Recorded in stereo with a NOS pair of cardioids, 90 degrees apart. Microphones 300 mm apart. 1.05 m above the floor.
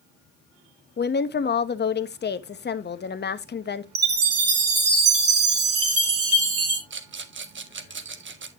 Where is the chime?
50° right, 3 m.